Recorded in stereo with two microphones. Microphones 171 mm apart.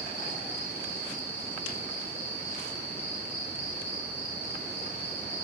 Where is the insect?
15° left (ahead or behind), 6 m.